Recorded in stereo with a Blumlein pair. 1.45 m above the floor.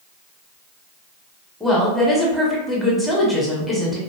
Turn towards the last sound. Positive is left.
turn(degrees=0)